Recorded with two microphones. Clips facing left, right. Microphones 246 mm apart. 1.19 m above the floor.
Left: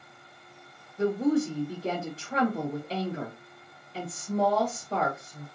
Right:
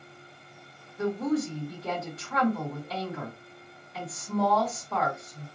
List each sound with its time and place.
1.0 s a woman speaking: 30° left (ahead or behind), 1.2 m